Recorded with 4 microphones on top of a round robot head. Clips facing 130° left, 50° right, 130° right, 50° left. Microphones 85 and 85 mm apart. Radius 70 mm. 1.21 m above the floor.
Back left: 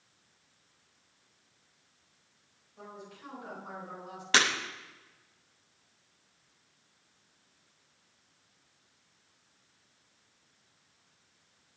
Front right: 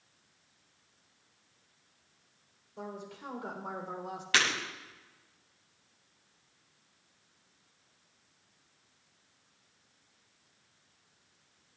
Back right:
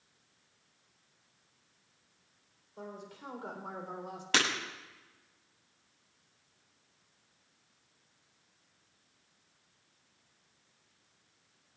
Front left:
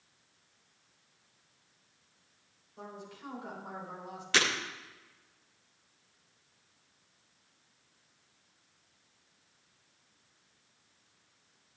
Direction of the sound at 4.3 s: 170° right.